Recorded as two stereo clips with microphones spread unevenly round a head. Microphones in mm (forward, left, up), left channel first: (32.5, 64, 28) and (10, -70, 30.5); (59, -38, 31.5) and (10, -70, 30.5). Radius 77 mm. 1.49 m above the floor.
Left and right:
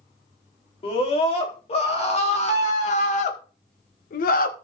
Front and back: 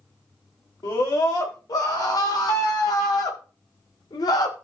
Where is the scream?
35° left, 3.5 m; by 4.5 s 70° left, 1.4 m.